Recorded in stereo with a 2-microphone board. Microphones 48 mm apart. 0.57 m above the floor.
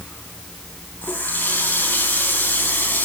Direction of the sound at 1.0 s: 40° left (ahead or behind).